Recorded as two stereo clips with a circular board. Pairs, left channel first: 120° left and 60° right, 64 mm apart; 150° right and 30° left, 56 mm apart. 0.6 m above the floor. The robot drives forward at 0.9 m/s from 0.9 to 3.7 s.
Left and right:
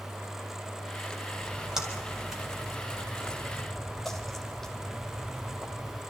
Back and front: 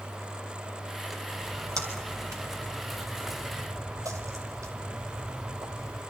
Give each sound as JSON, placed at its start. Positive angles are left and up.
{"t": 1.4, "sound": "a splash", "azimuth_deg": 20, "distance_m": 5.0}